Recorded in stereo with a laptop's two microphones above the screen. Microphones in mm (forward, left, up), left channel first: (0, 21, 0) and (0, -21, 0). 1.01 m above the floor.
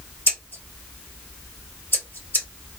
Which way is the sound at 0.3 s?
60° left (ahead or behind).